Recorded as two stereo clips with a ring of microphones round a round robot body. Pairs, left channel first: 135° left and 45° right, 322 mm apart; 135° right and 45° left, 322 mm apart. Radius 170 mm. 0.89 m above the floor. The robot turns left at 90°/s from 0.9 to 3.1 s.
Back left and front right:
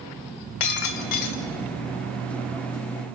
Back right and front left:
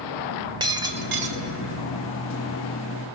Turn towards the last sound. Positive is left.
turn(degrees=-75)